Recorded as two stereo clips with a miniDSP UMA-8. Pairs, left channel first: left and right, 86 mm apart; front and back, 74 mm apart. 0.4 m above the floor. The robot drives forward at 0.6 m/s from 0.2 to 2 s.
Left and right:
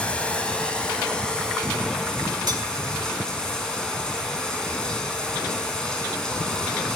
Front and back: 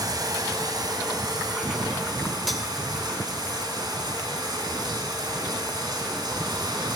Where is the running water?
165° left, 1.8 m; by 7.0 s 170° left, 3 m.